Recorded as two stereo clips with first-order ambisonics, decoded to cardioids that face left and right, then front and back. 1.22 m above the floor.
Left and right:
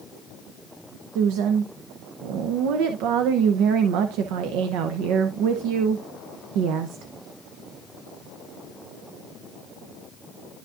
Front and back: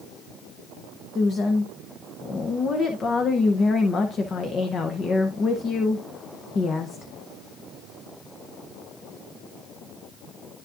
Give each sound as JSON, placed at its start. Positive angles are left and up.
{"t": 1.1, "sound": "a woman speaking", "azimuth_deg": -65, "distance_m": 0.7}